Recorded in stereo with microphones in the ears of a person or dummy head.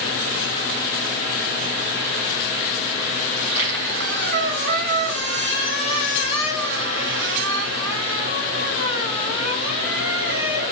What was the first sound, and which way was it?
A squeak, 80° right.